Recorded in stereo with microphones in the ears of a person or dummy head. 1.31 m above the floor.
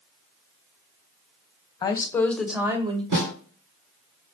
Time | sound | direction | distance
1.8 | a woman speaking | 20° left (ahead or behind) | 0.8 m
3.1 | a snare drum | 50° right (ahead or behind) | 1.9 m